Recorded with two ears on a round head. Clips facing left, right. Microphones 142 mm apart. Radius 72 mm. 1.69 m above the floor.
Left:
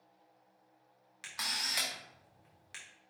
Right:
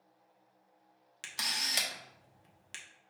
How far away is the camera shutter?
About 0.8 m.